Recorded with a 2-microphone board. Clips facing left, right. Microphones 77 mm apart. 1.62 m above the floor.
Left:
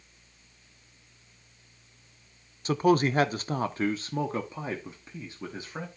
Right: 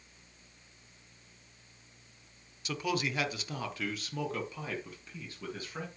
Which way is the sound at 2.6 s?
40° left (ahead or behind).